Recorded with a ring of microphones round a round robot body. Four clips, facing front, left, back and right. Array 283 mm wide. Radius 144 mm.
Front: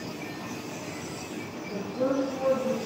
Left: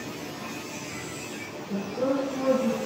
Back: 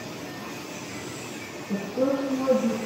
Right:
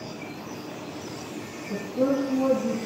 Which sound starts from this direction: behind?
A woman speaking, at 1.7 s.